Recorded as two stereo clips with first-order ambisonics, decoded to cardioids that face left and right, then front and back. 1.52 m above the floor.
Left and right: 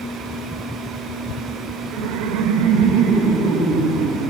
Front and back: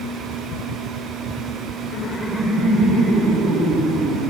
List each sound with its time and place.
1.9 s laughter: 45° right, 0.6 m; by 4.3 s 135° right, 3.5 m